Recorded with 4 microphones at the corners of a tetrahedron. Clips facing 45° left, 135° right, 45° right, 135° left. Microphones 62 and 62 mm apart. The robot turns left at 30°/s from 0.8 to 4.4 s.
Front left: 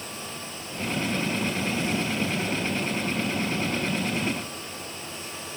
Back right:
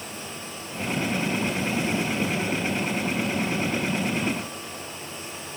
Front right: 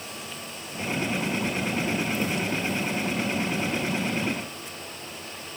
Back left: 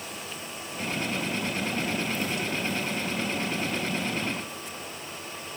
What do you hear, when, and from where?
Only background noise.